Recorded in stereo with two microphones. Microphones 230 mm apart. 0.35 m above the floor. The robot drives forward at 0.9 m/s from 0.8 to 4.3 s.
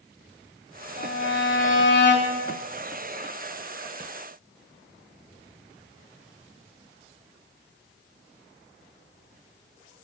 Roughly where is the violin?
Left.